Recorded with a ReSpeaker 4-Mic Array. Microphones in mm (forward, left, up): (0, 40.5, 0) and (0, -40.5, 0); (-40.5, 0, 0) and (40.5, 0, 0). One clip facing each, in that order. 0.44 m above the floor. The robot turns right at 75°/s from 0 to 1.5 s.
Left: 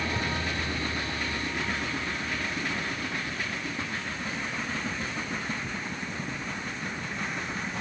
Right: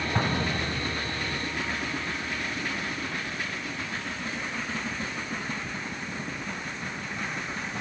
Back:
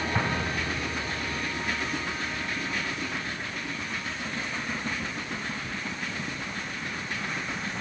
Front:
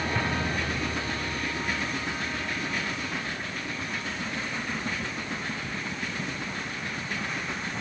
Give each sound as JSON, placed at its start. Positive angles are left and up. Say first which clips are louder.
{"t": 0.1, "sound": "an explosion", "louder": "right 3 dB, even", "azimuth_deg": -115}